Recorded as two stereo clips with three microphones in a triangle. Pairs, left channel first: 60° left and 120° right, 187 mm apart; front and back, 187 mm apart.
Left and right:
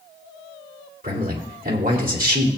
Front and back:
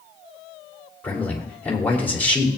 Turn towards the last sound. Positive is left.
turn(degrees=-80)